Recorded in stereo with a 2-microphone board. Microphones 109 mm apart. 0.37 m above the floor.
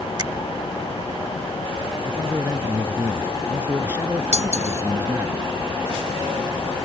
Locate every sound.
0.2 s a finger snap: 45° right (ahead or behind)
2.0 s a man speaking: 20° right (ahead or behind)
4.3 s cutlery clinking: 80° right